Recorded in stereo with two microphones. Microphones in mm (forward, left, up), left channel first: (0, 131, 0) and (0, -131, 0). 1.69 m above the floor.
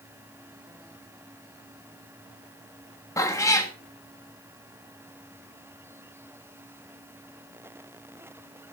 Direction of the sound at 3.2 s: 10° left (ahead or behind).